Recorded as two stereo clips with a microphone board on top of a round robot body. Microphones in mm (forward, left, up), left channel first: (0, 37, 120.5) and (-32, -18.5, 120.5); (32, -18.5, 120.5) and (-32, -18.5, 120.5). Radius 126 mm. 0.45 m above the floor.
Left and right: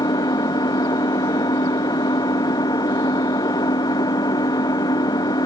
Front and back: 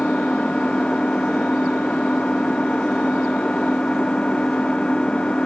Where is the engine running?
75° left.